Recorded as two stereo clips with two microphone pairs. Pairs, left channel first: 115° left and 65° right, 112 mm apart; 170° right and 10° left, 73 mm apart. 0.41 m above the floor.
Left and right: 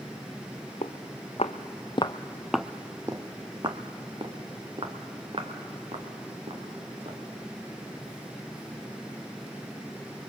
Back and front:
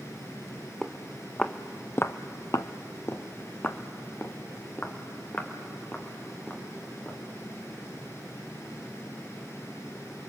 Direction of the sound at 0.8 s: 105° left.